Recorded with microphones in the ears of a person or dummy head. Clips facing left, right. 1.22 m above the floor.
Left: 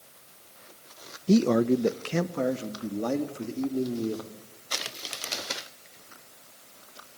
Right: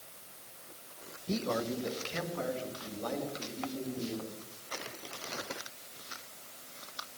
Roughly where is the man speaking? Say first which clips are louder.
Left 13 dB; left.